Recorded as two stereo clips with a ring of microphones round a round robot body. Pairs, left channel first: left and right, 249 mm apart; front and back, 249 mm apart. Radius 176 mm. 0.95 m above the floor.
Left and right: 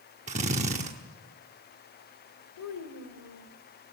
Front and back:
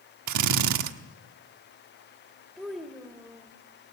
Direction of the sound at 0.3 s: 160° right.